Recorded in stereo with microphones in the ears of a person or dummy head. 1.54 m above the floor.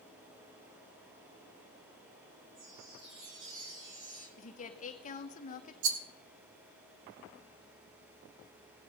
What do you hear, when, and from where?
2.5 s a chime: 85° right, 9.5 m
4.4 s a woman speaking: 35° left (ahead or behind), 1.1 m
5.8 s a rattle: 65° right (ahead or behind), 1.4 m